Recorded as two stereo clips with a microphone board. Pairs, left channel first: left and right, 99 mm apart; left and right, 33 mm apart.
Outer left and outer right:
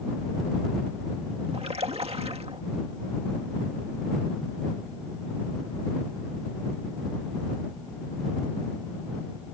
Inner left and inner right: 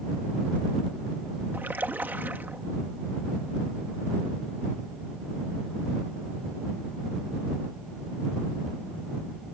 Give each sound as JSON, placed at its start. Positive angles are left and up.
{"t": 1.5, "sound": "a splash", "side_deg": -75}